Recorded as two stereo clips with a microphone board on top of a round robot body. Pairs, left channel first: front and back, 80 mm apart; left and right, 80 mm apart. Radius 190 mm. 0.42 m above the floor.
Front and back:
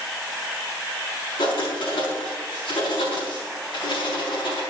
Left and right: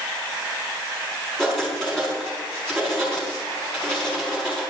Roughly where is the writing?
Ahead.